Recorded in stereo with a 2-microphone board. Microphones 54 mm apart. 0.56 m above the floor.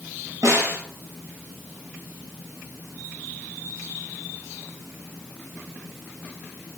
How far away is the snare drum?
About 1.6 m.